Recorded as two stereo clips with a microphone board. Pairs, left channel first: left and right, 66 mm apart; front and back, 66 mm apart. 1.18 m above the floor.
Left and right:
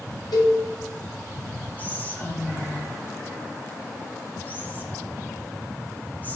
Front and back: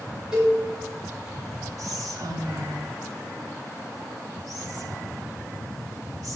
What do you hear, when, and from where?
0.3 s a cowbell: 100° left, 5 m
1.8 s whispering: 155° left, 2.5 m